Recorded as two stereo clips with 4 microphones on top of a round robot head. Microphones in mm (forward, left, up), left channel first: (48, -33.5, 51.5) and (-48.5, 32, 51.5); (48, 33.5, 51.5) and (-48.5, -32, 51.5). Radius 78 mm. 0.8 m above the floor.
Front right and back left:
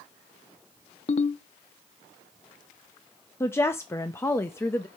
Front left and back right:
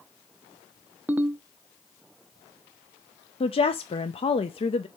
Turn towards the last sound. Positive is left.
turn(degrees=25)